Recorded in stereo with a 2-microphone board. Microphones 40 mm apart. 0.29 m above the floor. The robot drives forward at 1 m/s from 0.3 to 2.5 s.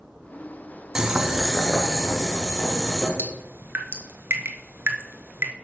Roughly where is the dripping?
Right.